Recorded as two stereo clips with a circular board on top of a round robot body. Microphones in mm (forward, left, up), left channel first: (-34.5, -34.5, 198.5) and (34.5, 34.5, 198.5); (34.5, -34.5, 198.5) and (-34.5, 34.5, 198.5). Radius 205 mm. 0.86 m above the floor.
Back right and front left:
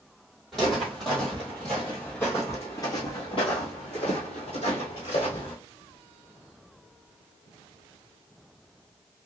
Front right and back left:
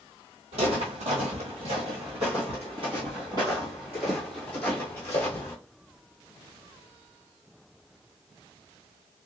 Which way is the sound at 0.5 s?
135° left.